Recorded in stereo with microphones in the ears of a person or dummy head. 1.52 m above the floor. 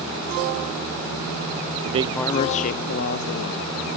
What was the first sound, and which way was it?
A man speaking, 35° right (ahead or behind).